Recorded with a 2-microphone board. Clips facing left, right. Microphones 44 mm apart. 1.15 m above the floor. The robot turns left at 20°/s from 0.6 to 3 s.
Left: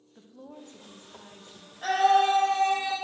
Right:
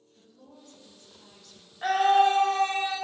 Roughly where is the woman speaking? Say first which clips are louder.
Left 7 dB; left.